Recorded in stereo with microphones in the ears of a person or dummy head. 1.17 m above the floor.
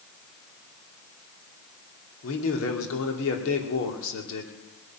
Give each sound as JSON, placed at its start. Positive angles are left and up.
{"t": 2.2, "sound": "a man speaking", "side_deg": 75, "distance_m": 2.5}